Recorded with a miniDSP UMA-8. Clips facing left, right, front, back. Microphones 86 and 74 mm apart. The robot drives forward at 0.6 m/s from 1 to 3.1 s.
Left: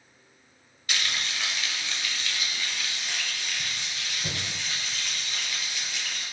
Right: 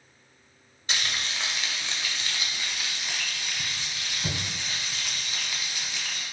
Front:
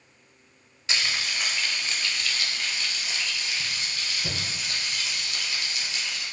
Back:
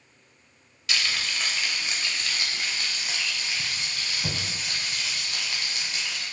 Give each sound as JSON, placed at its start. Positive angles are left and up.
{"t": 0.9, "sound": "frying", "azimuth_deg": -45, "distance_m": 0.7}